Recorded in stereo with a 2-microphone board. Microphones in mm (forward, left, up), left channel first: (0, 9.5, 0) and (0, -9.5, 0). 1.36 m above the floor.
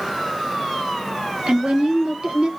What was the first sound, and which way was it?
A woman speaking, 80° right.